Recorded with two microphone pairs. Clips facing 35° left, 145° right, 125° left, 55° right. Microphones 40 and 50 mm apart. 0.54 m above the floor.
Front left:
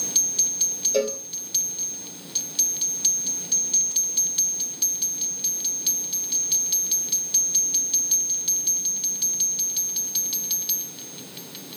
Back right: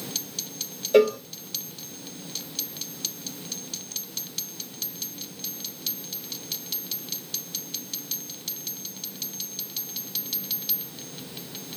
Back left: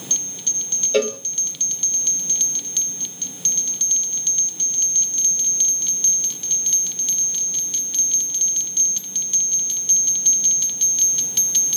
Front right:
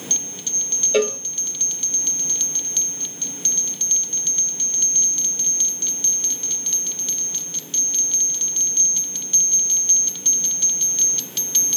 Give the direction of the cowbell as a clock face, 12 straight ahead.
5 o'clock.